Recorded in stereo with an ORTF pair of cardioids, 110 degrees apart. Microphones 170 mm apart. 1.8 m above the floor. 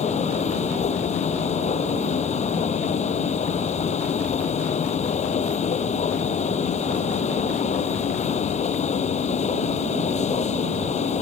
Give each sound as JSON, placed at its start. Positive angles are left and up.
{"t": 0.0, "sound": "a machine running", "azimuth_deg": 40}